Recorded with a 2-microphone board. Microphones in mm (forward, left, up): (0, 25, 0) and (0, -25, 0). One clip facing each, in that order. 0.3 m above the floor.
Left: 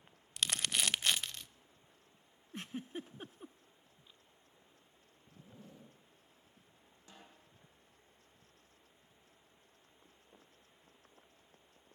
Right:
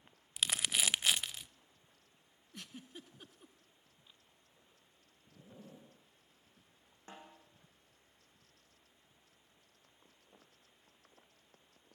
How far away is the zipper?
About 6.5 m.